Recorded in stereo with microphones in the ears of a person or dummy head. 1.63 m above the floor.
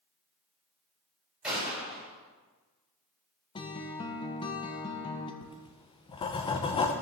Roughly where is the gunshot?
Centre.